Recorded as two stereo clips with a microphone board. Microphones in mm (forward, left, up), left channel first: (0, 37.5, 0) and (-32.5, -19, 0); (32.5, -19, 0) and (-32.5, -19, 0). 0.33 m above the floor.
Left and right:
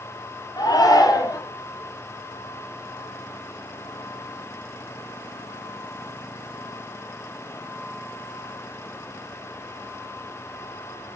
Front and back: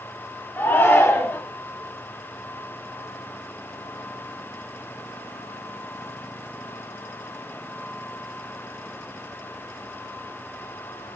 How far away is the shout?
About 7 m.